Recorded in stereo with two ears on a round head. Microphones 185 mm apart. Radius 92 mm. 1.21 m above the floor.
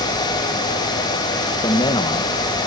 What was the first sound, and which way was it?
A man speaking, 20° left (ahead or behind).